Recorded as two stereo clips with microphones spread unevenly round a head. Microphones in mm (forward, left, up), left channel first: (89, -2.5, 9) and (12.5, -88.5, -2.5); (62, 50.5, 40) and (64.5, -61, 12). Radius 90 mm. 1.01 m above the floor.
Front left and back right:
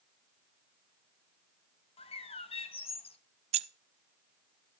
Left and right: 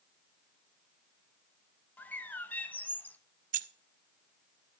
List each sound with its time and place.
2.0 s a bird: 10° left, 1.1 m
3.5 s keys jangling: 100° right, 0.5 m